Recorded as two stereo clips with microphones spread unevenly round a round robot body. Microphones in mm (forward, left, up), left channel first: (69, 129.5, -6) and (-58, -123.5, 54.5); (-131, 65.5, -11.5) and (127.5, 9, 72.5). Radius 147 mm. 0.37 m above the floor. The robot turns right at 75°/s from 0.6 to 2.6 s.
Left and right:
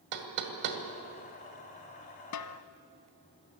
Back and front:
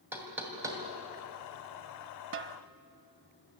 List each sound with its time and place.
0.1 s knocking: 105° right, 2.5 m; by 0.8 s 90° right, 2.5 m
2.3 s a snare drum: 35° left, 0.9 m; by 2.6 s 55° left, 0.9 m